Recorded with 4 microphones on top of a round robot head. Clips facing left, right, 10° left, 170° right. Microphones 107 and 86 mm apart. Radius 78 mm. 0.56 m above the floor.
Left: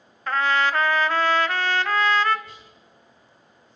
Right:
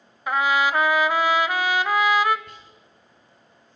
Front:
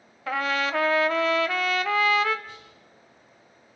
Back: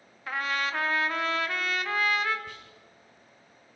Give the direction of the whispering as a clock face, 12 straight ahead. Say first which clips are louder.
Even, even; 5 o'clock.